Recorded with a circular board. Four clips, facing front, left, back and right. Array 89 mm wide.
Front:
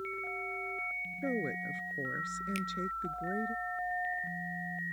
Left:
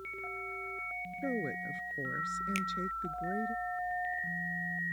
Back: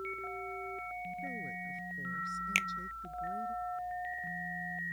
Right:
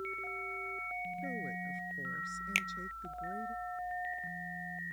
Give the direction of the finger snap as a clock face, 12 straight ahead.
5 o'clock.